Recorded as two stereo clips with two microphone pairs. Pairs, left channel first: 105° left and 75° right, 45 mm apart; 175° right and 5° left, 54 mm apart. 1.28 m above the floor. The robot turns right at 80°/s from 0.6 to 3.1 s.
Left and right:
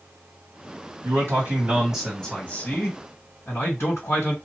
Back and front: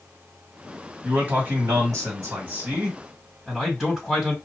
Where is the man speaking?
75° right, 1.9 m; by 4.3 s 90° left, 1.9 m.